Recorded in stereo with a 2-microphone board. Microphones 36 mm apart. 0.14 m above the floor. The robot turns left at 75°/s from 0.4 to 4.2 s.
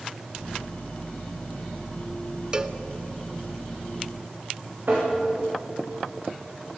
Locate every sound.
2.5 s a cowbell: 25° right (ahead or behind), 0.7 m; by 2.8 s 15° right (ahead or behind), 0.7 m
4.9 s tapping: 55° right (ahead or behind), 8.5 m